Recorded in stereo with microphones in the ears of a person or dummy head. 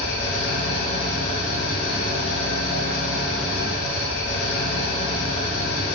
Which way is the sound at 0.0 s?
55° left (ahead or behind).